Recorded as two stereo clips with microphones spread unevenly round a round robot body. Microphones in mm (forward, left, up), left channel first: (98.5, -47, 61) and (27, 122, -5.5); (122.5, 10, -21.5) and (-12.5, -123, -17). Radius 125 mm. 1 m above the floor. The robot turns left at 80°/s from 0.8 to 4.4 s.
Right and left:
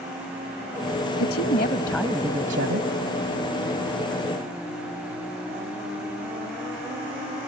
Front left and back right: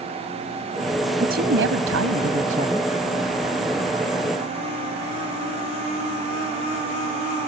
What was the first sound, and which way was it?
A woman speaking, 90° right.